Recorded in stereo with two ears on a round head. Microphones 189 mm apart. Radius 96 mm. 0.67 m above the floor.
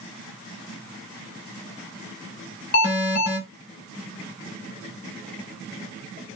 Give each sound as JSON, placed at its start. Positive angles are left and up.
{"t": 2.7, "sound": "an alarm", "side_deg": 40, "distance_m": 1.1}